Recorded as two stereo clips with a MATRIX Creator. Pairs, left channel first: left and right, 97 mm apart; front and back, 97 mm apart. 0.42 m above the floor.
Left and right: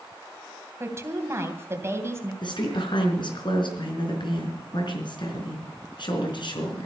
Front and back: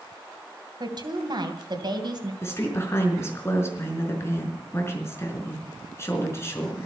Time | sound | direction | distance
0.8 | a woman speaking | 150° right | 2.5 m
2.4 | a woman speaking | 60° left | 4.5 m